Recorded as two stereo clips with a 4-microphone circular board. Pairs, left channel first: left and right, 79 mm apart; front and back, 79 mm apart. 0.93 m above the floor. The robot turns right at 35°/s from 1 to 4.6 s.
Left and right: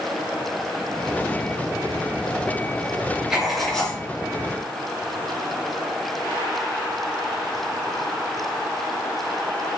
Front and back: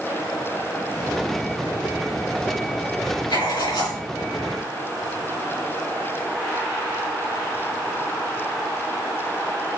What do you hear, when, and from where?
3.3 s writing: 10° right, 4 m; by 4.0 s 15° left, 4 m